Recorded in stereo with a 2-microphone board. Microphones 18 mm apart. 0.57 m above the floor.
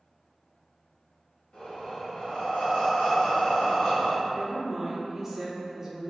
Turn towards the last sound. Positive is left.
turn(degrees=-15)  # may be behind; listen again after turning